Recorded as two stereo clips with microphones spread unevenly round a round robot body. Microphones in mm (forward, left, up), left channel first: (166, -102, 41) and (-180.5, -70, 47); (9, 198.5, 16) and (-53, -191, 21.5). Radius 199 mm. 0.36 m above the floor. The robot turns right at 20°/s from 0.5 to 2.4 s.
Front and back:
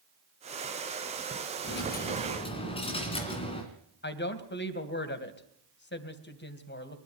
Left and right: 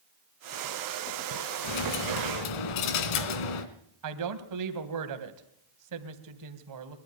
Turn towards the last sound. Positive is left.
turn(degrees=-60)